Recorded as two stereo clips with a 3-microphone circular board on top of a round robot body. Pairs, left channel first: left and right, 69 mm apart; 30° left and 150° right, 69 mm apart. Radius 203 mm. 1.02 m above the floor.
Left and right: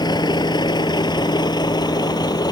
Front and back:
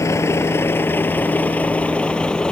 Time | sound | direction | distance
0.0 | a vehicle | 80° left | ?